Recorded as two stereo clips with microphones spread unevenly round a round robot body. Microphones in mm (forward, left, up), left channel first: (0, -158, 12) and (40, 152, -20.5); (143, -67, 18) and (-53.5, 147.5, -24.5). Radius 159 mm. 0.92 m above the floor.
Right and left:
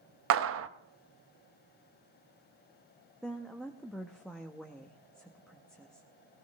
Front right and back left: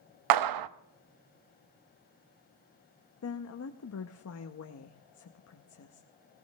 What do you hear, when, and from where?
0.3 s a clap: 130° left, 0.6 m
3.2 s a woman speaking: 5° right, 0.9 m